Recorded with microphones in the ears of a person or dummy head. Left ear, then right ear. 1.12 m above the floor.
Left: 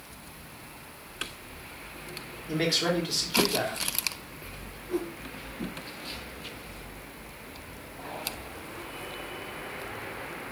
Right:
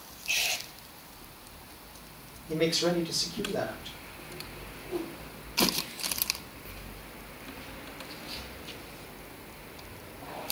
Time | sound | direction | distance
2.5 | a man speaking | 60° left (ahead or behind) | 3 m
4.9 | a whoosh | 65° left (ahead or behind) | 2.5 m